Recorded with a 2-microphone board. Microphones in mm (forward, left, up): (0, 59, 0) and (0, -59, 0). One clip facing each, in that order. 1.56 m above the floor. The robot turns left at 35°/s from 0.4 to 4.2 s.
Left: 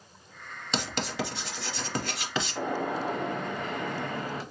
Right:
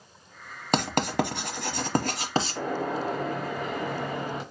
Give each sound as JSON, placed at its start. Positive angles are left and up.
{"t": 0.7, "sound": "writing", "side_deg": -55, "distance_m": 0.7}
{"t": 2.5, "sound": "a gunshot", "azimuth_deg": 20, "distance_m": 1.2}